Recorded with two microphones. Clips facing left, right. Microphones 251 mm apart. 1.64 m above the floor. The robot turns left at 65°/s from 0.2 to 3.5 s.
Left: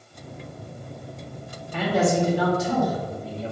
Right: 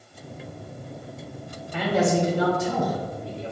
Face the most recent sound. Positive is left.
turn(degrees=-125)